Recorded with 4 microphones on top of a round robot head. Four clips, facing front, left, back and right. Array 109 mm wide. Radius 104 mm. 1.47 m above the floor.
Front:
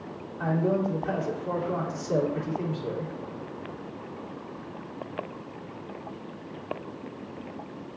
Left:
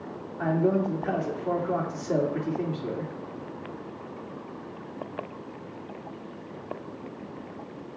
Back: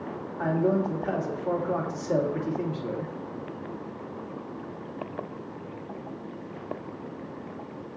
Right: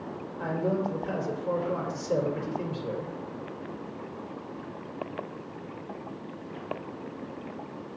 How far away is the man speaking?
About 2.5 m.